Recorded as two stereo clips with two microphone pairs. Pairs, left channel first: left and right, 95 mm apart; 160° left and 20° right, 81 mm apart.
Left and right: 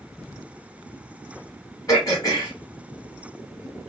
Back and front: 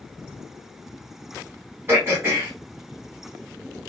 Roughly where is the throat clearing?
Ahead left.